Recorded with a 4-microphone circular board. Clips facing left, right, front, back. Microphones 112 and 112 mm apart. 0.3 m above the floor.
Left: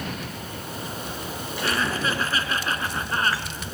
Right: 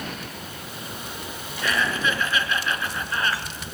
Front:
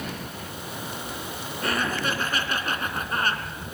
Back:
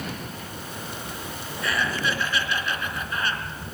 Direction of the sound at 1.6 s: 40° left.